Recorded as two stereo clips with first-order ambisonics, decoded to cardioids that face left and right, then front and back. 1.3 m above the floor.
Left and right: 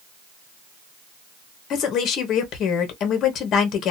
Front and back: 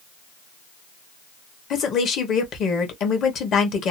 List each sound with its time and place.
1.7 s a woman speaking: 45° left, 0.9 m